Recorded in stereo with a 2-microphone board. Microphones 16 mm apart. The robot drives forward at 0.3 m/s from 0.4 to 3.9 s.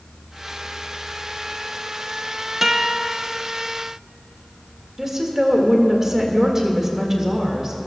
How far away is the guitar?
About 0.8 m.